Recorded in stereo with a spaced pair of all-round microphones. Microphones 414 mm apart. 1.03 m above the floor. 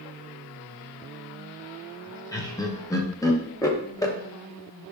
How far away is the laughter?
About 0.8 m.